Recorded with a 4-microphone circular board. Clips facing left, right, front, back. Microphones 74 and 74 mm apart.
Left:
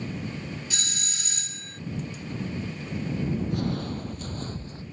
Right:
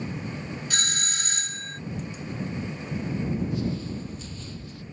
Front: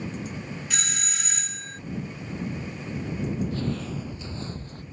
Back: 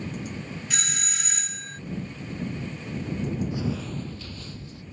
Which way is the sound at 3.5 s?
105° left.